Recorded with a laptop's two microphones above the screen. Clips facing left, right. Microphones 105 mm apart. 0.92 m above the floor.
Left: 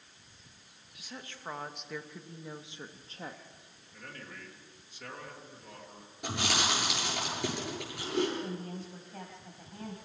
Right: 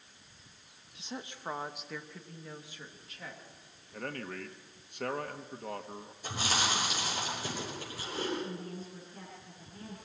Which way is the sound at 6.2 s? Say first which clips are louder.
Left 1 dB; 70° left (ahead or behind).